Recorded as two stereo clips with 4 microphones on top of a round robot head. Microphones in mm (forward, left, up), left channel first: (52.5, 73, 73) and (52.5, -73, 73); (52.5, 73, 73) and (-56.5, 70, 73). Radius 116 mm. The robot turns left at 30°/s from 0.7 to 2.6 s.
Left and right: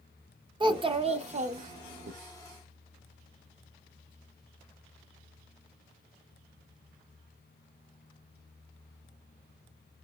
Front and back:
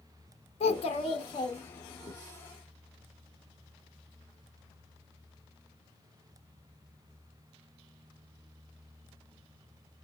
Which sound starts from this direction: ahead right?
A child speaking, at 0.6 s.